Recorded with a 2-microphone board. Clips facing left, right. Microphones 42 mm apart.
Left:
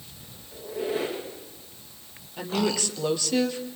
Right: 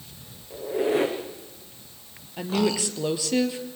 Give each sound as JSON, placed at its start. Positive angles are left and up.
{"t": 0.5, "sound": "a squeak", "side_deg": -80, "distance_m": 6.5}
{"t": 2.4, "sound": "a woman speaking", "side_deg": -10, "distance_m": 3.0}